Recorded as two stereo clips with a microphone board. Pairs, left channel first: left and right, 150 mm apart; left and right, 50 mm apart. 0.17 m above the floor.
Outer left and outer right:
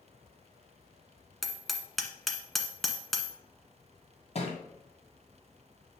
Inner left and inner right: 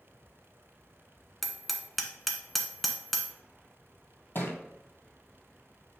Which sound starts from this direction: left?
A thud, at 4.3 s.